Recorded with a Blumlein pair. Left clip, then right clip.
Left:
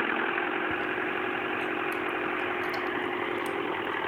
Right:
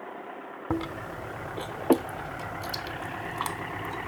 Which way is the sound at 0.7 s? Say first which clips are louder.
Left 4 dB; 30° right.